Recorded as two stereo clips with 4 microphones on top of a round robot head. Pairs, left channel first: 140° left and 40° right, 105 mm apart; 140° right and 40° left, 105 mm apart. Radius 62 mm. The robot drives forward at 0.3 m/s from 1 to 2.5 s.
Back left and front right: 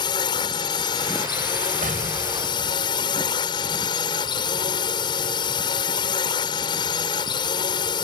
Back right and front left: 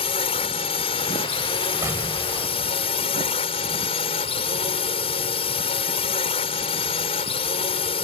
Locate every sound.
0.0 s a drone: 175° right
1.8 s an explosion: 30° right